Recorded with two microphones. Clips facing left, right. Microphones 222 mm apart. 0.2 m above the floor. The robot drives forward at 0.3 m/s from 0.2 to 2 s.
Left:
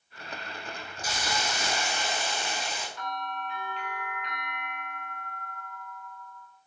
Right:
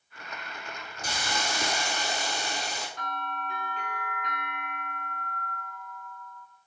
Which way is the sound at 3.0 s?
45° right (ahead or behind).